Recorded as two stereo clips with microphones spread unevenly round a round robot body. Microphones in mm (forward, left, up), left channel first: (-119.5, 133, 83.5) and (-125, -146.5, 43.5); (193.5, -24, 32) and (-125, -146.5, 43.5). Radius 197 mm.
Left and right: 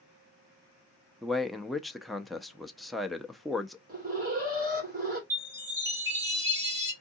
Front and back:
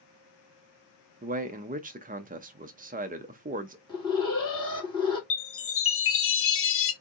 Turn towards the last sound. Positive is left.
turn(degrees=-20)